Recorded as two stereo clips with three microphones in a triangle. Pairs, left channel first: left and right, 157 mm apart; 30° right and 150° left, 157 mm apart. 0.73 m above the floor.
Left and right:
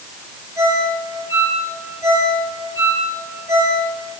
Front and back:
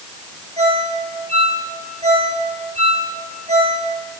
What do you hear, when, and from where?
0.6 s a ringtone: 160° right, 10 m